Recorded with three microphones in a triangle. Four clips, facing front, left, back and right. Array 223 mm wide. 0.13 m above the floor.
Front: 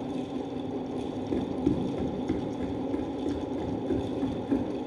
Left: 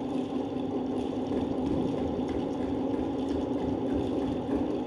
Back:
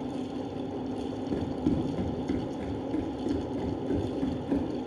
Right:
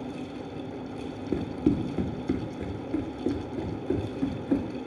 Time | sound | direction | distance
1.3 | running footsteps | 85° right | 1.6 m